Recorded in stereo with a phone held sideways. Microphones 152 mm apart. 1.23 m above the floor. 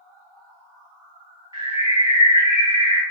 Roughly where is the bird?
Right.